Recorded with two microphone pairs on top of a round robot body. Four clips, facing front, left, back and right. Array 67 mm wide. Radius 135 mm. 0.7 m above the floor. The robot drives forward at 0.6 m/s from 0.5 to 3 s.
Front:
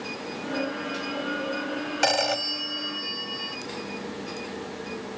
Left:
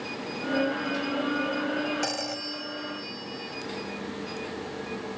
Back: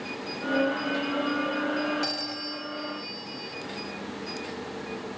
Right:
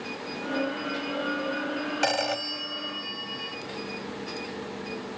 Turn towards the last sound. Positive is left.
turn(degrees=-40)